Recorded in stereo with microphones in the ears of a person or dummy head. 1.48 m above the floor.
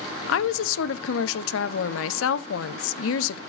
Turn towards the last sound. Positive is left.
turn(degrees=85)